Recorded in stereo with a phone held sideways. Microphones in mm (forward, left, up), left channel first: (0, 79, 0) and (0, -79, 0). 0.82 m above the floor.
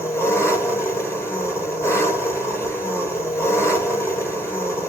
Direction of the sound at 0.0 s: 15° left (ahead or behind).